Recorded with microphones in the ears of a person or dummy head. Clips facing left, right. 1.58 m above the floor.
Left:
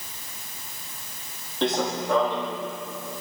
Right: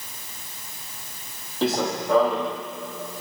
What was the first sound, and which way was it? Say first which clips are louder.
Running footsteps: right 1 dB; 5° right (ahead or behind).